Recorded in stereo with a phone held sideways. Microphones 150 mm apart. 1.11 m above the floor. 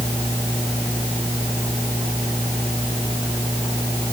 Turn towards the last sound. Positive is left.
No sound to turn to.